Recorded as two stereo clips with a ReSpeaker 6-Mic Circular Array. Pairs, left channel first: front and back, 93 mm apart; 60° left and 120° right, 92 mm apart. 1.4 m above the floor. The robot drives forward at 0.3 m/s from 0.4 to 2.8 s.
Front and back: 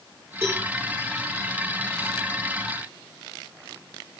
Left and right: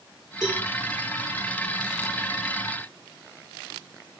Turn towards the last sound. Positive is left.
turn(degrees=120)